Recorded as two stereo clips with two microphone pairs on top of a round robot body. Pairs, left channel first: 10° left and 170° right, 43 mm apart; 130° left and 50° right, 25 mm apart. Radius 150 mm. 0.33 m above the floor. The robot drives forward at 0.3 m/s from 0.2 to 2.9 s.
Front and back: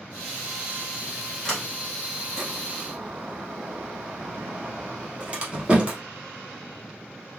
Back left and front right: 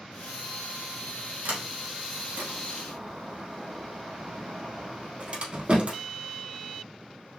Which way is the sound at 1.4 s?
60° right.